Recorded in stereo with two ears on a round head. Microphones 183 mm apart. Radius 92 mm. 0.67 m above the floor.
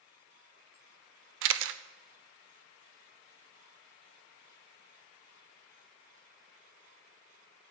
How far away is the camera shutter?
About 0.5 m.